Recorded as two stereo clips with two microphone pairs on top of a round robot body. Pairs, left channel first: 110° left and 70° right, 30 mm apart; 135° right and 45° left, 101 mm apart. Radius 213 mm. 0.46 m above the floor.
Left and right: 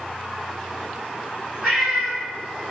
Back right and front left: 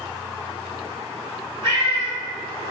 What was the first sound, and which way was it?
A cat meowing, 15° left.